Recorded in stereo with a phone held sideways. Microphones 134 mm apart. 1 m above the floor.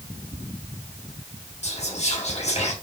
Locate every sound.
1.6 s whispering: 55° left (ahead or behind), 1.7 m